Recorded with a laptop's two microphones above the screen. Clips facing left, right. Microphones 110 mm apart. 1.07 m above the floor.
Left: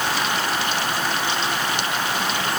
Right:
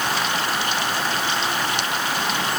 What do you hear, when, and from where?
Only background noise.